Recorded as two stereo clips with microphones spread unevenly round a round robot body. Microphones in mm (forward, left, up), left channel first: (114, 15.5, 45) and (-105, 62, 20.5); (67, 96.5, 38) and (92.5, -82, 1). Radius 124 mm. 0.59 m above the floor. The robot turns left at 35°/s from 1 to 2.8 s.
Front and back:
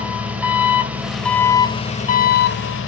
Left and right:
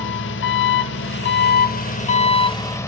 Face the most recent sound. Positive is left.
turn(degrees=20)